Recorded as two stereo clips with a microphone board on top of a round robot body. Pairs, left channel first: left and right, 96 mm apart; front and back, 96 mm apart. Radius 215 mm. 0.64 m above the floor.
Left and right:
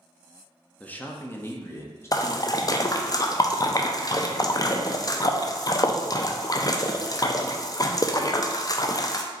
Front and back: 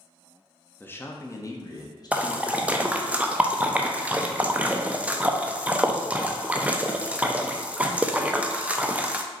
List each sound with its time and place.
0.8 s a man speaking: 40° left, 0.9 m; by 3.1 s 35° left, 1.7 m
2.1 s a splash: 110° left, 0.7 m